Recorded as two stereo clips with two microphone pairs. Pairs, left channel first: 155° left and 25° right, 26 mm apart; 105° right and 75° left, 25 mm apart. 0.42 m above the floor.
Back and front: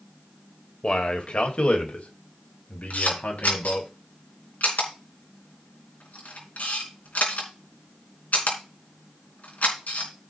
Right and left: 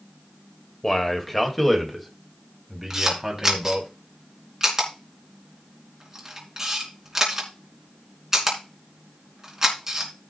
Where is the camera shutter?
145° left, 3.5 m.